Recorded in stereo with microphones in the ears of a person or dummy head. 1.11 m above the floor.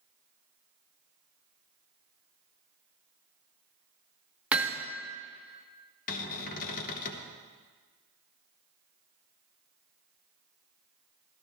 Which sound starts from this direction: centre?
Hammering, at 4.5 s.